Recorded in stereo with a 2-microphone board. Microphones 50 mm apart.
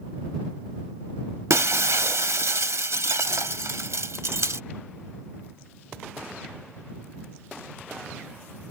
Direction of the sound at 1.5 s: 75° right (ahead or behind).